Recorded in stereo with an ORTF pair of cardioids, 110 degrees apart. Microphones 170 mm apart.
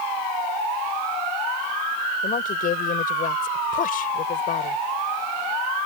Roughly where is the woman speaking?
Ahead left.